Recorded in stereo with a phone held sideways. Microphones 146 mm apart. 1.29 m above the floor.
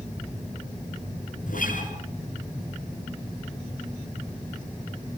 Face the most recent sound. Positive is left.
turn(degrees=75)  # may be behind; listen again after turning